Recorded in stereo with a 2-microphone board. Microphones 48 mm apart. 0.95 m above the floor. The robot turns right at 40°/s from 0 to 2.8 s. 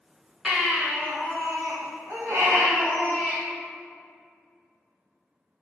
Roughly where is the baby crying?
Behind right.